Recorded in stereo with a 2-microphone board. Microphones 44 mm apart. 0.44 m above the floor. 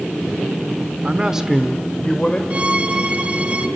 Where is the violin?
30° right (ahead or behind), 1.2 m.